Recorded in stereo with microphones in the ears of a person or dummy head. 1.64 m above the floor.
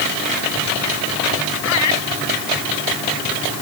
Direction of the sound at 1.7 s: 80° left.